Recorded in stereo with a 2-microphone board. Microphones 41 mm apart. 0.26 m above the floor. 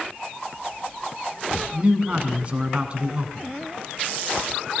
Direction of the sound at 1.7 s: 30° right (ahead or behind).